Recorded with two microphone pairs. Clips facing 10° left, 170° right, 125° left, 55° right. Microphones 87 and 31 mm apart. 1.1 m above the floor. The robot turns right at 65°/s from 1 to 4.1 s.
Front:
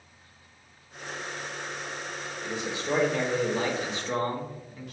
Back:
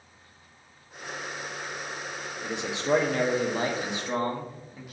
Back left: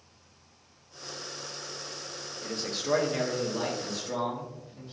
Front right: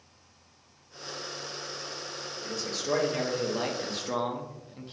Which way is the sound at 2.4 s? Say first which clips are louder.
Back 2 dB, back left 1 dB; 165° left.